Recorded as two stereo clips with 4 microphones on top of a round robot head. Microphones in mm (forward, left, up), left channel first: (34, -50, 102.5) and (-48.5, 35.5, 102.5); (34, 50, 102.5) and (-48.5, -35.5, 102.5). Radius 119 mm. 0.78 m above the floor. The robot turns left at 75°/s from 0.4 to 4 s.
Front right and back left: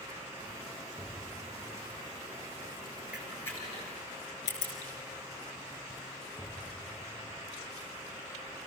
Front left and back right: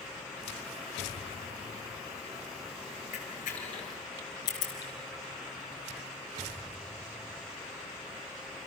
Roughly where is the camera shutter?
Ahead left.